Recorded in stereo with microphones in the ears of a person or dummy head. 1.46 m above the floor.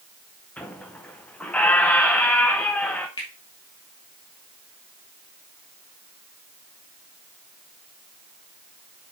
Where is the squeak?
Centre (ahead or behind), 0.6 m.